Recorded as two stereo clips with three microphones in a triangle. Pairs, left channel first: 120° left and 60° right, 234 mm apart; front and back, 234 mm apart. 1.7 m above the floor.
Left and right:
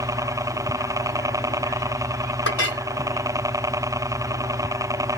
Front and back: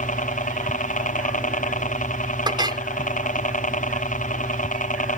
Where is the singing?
I don't hear singing.